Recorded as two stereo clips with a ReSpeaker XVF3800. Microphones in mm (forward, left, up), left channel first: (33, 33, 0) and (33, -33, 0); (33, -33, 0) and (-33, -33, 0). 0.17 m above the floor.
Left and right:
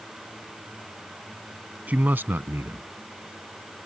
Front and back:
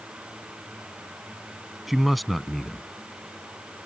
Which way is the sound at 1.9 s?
100° right.